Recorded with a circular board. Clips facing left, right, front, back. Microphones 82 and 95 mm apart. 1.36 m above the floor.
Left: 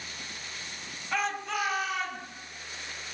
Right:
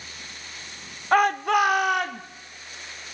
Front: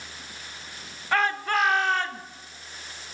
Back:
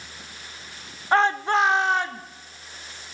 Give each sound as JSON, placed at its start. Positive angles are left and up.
{"t": 1.1, "sound": "a shout", "azimuth_deg": -120, "distance_m": 0.9}